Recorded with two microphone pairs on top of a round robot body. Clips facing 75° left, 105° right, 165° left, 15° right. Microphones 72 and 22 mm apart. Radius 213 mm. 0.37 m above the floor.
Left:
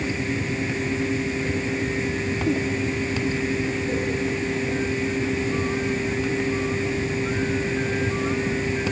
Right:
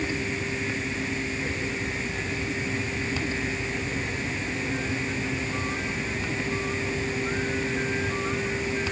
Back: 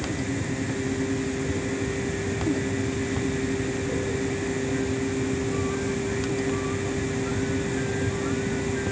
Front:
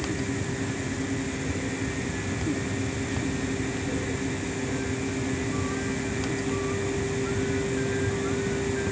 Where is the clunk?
I don't hear a clunk.